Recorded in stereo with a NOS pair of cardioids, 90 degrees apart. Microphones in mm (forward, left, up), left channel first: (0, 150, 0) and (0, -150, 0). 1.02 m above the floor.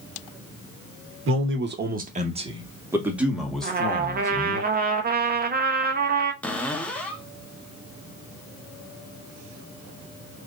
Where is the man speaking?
45° right, 1.2 m; by 4.6 s 10° left, 2 m.